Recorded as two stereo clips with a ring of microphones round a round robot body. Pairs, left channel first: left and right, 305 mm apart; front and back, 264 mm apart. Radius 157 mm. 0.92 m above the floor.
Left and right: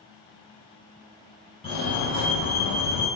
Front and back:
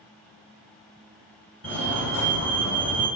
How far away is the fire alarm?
About 2.5 m.